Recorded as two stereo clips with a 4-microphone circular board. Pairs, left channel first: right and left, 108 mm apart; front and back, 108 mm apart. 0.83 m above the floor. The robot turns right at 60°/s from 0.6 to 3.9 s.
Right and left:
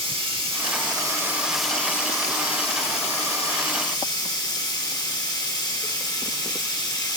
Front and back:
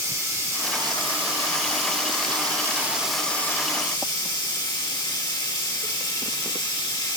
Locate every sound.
0.0 s running water: 120° left, 1.5 m; by 7.2 s 45° right, 1.5 m